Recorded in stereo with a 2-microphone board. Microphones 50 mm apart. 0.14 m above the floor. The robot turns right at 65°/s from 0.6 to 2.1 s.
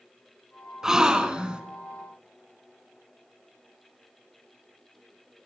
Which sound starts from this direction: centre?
A gasp, at 0.8 s.